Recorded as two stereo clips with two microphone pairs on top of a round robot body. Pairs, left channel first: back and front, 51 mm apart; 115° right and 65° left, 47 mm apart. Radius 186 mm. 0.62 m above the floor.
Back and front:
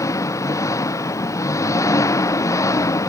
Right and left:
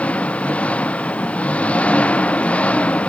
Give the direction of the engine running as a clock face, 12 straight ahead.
6 o'clock.